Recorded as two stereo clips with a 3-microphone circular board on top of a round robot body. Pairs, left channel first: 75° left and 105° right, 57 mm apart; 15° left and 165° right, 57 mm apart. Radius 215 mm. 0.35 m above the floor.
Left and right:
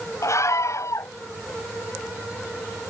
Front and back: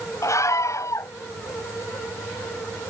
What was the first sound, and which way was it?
A scream, 45° left.